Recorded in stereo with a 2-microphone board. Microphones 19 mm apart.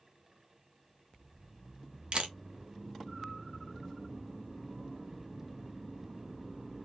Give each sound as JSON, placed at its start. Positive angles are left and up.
{"t": 2.1, "sound": "a camera shutter", "side_deg": -55, "distance_m": 0.9}